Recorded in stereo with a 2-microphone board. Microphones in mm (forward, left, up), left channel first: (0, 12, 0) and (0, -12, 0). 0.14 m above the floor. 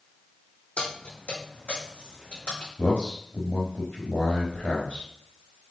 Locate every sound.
0.8 s keys jangling: 55° left (ahead or behind), 4 m; by 2.7 s 65° left (ahead or behind), 6 m
2.8 s a man speaking: 70° left (ahead or behind), 4 m